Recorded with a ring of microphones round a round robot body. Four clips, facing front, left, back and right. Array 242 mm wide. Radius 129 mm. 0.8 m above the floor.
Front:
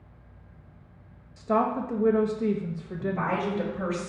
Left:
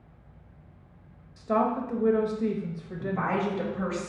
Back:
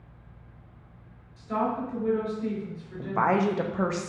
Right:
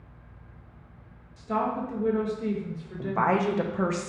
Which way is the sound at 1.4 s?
25° left.